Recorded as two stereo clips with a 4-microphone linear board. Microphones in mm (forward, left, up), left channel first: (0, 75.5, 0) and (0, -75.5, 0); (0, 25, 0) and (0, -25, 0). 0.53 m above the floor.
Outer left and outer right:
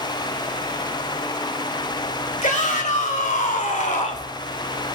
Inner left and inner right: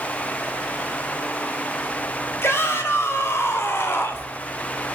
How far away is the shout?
About 3 m.